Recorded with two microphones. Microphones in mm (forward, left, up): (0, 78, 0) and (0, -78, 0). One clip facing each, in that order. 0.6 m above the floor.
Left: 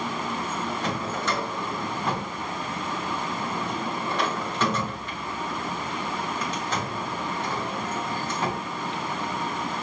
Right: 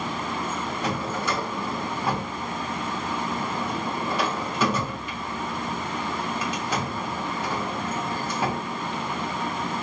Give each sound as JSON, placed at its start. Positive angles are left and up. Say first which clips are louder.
{"t": 0.8, "sound": "a drawer", "louder": "right 3 dB", "side_deg": -10, "distance_m": 0.8}